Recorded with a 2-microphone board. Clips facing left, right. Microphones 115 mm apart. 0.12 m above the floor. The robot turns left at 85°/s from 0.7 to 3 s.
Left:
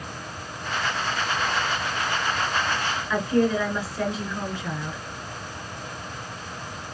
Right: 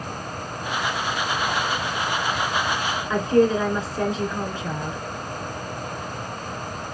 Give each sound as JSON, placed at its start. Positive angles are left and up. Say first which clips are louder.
{"t": 3.1, "sound": "a woman speaking", "louder": "right 4 dB", "side_deg": -25, "distance_m": 1.4}